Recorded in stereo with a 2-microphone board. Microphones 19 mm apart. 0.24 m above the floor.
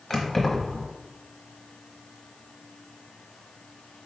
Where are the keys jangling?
15° left (ahead or behind), 0.9 m.